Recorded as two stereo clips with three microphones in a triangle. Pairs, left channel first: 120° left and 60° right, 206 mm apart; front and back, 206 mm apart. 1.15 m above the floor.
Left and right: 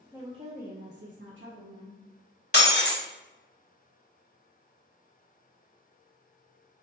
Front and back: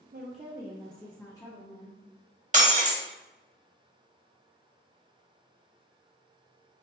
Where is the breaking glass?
135° left, 0.8 m.